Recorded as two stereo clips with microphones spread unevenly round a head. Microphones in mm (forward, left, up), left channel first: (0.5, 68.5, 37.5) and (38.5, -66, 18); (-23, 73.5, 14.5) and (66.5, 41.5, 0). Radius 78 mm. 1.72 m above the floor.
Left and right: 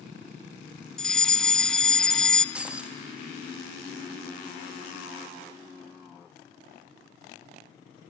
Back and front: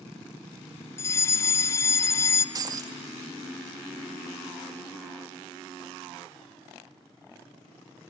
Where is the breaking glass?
15° left, 1.3 m.